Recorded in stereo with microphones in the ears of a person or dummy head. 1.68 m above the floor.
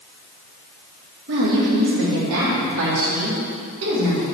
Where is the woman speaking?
60° right (ahead or behind), 2.5 m; by 4.2 s 80° right, 5 m.